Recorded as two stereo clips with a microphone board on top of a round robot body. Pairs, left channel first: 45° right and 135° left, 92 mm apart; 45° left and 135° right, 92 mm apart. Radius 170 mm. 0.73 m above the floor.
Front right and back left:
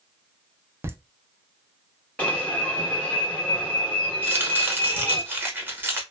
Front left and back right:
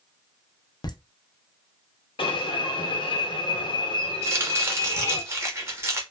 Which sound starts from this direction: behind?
Chopping, at 4.2 s.